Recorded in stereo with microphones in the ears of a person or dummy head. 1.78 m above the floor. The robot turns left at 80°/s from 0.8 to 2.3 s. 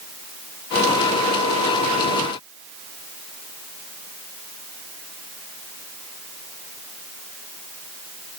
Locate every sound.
Only background noise.